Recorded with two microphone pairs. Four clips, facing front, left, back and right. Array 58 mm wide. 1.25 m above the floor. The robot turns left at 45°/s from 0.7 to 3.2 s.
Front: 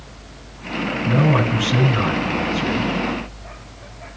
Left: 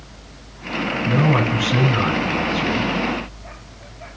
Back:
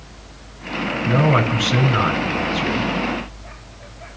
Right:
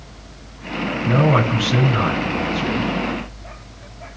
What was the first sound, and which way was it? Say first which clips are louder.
A man speaking: right 2 dB, back 1 dB; 130° right.